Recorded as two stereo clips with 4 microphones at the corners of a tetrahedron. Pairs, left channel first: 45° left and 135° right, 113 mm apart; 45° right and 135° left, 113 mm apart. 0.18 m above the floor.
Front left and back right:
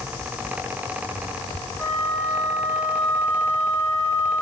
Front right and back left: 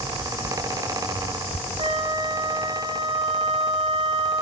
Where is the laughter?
No laughter in this recording.